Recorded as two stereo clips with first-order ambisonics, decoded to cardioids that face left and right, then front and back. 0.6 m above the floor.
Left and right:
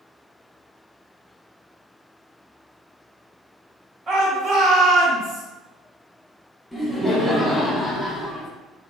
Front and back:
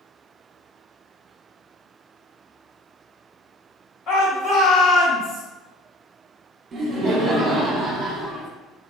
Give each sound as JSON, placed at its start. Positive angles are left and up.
{"t": 4.1, "sound": "a shout", "azimuth_deg": -35, "distance_m": 1.2}
{"t": 6.7, "sound": "laughter", "azimuth_deg": 175, "distance_m": 0.7}